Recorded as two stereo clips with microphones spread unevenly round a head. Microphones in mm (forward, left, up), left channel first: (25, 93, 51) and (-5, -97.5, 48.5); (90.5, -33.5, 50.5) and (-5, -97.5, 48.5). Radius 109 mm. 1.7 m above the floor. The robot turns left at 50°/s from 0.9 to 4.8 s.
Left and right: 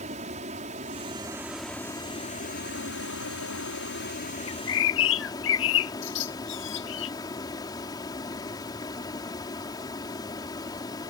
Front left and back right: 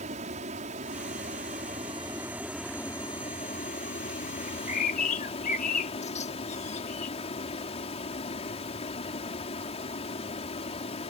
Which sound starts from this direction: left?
A bird, at 4.5 s.